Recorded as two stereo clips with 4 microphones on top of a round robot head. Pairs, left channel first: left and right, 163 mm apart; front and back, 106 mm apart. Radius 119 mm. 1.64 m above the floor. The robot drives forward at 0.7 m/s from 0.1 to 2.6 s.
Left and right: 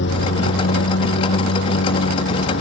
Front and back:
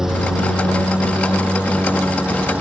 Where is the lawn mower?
95° left; by 2.6 s 100° left.